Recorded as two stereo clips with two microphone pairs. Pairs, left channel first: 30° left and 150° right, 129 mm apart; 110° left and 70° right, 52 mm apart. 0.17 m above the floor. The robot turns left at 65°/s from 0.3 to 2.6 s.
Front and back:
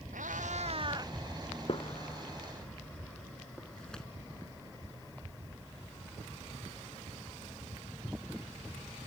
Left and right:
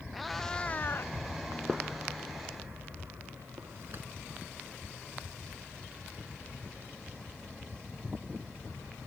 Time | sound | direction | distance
0.1 | a cat meowing | 160° right | ?
1.7 | a gunshot | 5° left | ?